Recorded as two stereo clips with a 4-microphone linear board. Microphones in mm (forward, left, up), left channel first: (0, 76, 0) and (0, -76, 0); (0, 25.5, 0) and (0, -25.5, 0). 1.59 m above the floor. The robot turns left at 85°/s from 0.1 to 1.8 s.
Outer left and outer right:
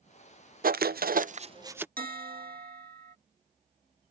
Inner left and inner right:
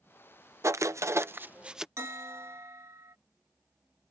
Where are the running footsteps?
I don't hear running footsteps.